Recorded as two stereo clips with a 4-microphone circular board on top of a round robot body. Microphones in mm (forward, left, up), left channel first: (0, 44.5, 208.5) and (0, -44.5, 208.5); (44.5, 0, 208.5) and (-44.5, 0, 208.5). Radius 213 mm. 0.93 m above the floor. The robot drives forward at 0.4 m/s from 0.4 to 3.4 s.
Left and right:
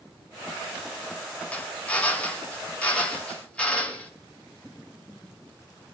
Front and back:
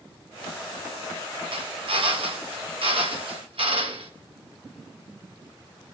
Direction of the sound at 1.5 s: 165° left.